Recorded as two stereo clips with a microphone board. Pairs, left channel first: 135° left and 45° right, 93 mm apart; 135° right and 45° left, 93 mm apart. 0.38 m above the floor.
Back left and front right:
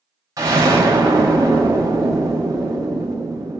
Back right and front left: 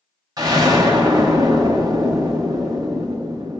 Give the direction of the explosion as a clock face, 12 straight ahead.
12 o'clock.